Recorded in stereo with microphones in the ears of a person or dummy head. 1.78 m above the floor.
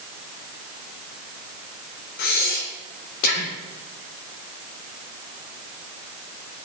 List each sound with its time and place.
2.2 s breathing: 60° left (ahead or behind), 2 m